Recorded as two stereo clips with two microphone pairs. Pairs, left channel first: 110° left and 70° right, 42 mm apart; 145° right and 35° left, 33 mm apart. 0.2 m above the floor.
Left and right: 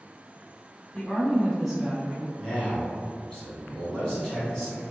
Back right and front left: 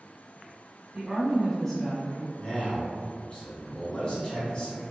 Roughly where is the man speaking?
Behind.